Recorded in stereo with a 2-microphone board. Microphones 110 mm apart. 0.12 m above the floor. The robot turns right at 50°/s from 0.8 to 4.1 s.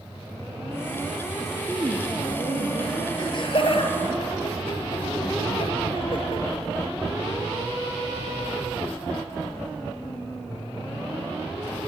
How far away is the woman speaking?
About 2.5 m.